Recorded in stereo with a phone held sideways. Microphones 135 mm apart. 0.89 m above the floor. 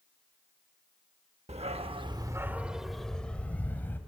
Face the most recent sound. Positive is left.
turn(degrees=15)  # may be behind; listen again after turning